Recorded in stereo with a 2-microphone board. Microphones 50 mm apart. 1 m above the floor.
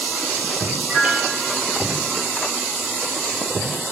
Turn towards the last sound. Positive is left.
turn(degrees=-15)  # may be behind; listen again after turning